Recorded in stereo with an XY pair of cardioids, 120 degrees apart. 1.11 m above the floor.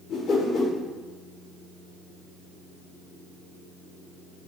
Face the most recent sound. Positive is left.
turn(degrees=55)